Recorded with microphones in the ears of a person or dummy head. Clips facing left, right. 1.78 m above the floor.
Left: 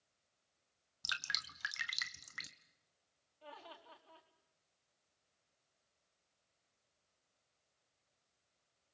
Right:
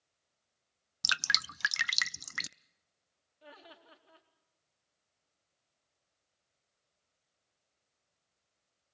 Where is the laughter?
20° right (ahead or behind), 4.5 m.